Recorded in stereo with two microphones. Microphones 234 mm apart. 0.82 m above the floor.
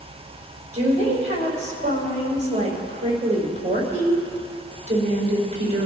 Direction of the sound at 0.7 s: 30° right (ahead or behind).